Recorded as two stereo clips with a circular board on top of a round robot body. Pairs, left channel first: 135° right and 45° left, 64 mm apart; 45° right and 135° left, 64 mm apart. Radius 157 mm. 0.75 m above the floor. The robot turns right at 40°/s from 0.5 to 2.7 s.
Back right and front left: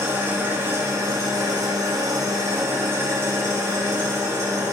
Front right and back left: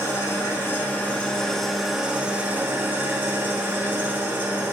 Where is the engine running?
5° right, 1.8 m; by 4.7 s 80° left, 1.8 m.